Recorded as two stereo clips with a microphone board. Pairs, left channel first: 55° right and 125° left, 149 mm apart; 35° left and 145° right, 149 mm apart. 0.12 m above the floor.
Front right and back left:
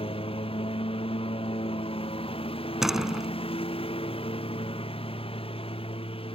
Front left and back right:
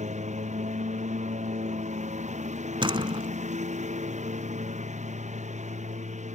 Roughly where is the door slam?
Behind right.